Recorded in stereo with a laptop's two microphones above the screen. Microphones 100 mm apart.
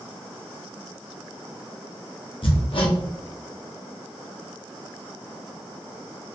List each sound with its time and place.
2.4 s hammering: 60° left (ahead or behind), 1.0 m